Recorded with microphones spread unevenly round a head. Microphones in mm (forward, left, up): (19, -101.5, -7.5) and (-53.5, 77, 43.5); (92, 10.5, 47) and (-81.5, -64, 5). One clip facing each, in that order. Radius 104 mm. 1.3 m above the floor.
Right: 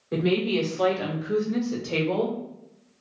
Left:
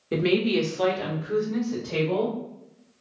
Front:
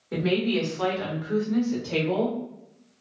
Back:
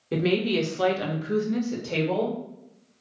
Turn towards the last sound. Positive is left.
turn(degrees=-95)